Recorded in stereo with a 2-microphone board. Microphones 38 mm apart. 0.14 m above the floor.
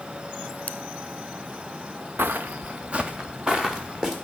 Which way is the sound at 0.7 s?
45° left (ahead or behind).